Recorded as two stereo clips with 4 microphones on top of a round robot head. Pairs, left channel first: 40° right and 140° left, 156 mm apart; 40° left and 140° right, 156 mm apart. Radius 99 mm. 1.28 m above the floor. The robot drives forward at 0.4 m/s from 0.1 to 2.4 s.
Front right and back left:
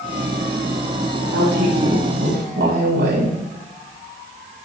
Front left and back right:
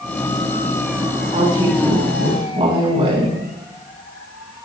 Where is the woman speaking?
165° left, 8.5 m.